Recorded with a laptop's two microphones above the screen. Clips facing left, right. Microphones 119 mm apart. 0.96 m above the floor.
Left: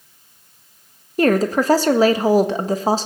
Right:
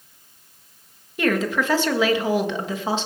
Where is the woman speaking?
35° left (ahead or behind), 1.3 m.